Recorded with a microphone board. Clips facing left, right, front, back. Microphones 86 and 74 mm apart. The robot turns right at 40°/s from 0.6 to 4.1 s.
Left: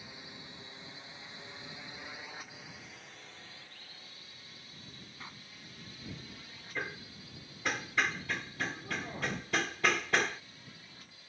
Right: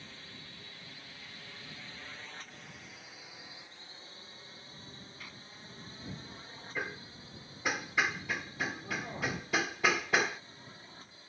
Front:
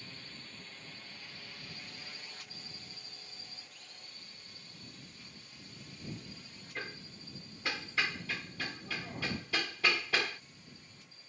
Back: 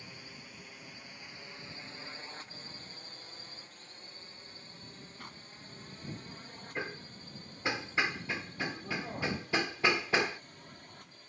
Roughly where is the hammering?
Behind.